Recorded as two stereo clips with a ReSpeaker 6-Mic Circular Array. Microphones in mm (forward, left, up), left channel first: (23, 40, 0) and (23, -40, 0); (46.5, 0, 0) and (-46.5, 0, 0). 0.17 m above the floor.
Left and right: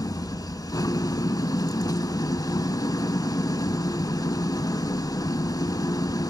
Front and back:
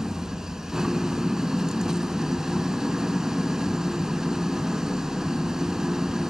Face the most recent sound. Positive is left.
turn(degrees=100)